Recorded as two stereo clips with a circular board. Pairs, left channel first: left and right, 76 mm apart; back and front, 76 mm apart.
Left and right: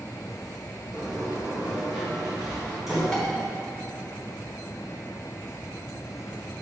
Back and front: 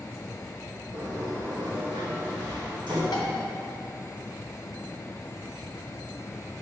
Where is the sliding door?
5° right, 1.9 m.